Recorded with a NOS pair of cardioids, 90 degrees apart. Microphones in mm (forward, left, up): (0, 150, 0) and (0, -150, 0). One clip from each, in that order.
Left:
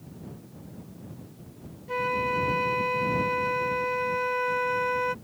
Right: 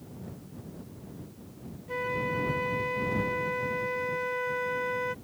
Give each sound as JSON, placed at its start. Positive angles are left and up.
{"t": 1.9, "sound": "a flute", "azimuth_deg": 30}